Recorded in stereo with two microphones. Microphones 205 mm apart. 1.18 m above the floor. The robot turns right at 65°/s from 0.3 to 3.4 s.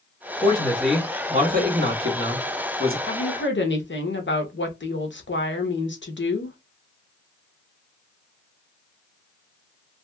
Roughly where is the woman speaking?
Left.